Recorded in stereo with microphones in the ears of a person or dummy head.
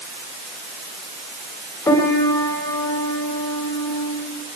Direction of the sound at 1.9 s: 15° left (ahead or behind).